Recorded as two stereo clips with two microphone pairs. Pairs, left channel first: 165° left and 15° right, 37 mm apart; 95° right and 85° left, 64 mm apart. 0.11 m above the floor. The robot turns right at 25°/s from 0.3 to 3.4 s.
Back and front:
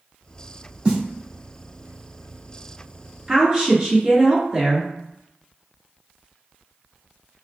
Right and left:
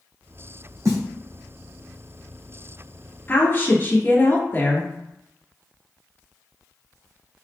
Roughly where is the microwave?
No microwave in this recording.